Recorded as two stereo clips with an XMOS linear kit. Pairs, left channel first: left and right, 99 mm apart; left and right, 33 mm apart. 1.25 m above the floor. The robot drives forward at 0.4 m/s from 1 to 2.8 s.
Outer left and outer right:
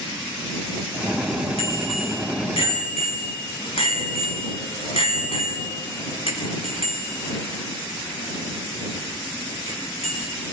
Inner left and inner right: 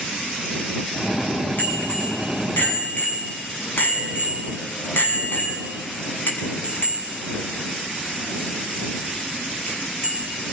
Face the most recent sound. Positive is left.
turn(degrees=75)  # may be behind; listen again after turning